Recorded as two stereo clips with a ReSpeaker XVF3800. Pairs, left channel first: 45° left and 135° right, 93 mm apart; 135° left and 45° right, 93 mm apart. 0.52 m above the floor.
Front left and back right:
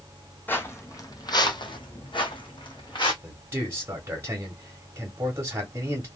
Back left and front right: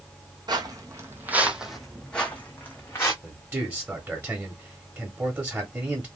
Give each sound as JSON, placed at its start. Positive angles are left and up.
{"t": 0.5, "sound": "footsteps", "azimuth_deg": -20, "distance_m": 0.9}
{"t": 3.2, "sound": "a man speaking", "azimuth_deg": -95, "distance_m": 1.3}